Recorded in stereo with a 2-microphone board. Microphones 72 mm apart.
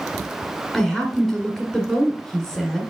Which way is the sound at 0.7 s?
5° right (ahead or behind).